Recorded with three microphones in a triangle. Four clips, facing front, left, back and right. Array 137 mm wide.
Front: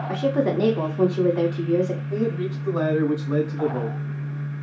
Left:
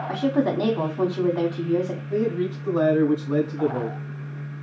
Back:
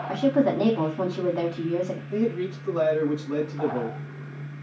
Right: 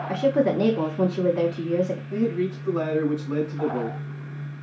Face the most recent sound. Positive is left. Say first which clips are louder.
# left 5 dB, front 1 dB
turn(degrees=45)